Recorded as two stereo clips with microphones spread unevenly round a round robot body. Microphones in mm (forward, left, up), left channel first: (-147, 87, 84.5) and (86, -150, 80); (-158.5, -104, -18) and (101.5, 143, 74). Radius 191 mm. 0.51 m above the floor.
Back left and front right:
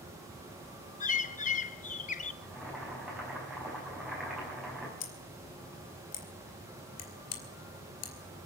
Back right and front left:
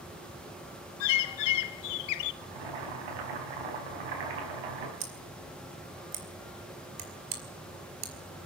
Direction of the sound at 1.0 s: 155° right.